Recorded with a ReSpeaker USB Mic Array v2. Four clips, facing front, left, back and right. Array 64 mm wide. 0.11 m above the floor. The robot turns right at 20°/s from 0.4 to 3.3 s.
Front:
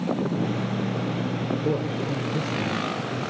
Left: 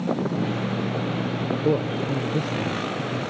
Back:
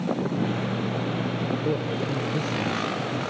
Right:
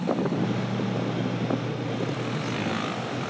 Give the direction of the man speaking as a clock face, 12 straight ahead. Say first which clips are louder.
Left 6 dB, front 1 dB; 9 o'clock.